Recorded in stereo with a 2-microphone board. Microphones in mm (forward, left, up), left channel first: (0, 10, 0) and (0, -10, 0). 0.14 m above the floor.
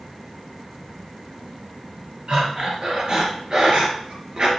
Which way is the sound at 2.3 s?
40° right (ahead or behind).